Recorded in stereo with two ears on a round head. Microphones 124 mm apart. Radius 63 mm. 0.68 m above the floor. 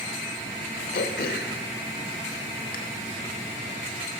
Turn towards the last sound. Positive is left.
turn(degrees=80)